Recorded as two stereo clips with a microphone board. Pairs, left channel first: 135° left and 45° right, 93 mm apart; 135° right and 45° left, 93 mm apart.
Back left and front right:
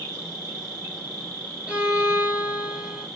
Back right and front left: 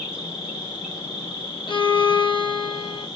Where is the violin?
120° right, 0.8 m.